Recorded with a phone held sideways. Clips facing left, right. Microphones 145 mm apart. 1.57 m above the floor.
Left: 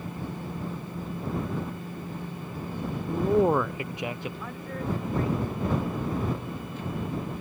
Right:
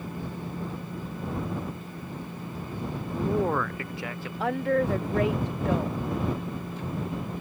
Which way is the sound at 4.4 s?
90° right.